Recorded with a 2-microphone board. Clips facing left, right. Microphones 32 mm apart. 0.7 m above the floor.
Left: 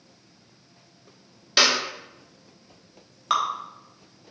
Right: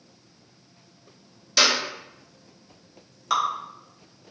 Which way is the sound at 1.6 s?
30° left (ahead or behind).